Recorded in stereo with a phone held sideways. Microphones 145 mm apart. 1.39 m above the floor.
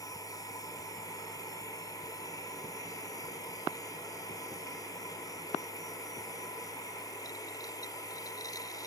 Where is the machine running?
25° left (ahead or behind).